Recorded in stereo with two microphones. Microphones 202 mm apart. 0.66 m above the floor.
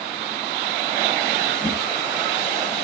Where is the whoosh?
20° right (ahead or behind), 8 m.